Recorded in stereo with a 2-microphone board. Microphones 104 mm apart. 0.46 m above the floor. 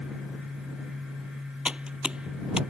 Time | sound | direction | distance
1.6 | typing on a keyboard | 10° right (ahead or behind) | ?